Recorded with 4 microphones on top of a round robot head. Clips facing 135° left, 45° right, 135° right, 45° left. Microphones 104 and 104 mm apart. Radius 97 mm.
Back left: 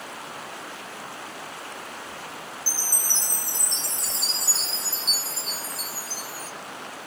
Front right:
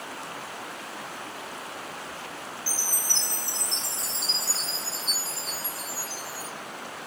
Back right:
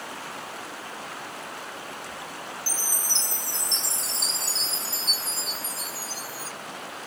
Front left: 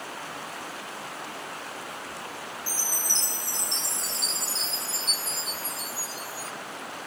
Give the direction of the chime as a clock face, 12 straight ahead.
6 o'clock.